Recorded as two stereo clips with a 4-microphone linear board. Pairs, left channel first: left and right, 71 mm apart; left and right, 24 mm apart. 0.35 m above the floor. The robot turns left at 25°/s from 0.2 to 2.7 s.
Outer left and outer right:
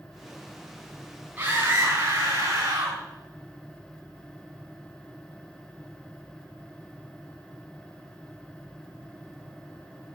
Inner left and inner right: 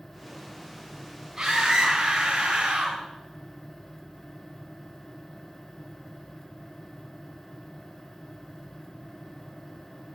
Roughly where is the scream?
Ahead right.